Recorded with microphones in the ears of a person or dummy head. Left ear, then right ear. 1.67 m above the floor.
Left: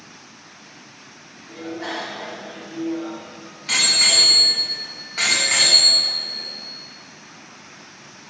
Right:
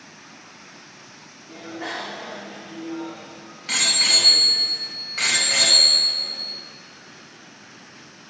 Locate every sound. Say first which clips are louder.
1.5 s a bicycle bell: left 2 dB; 20° right (ahead or behind), 3 m; by 6.4 s 10° left (ahead or behind), 6.5 m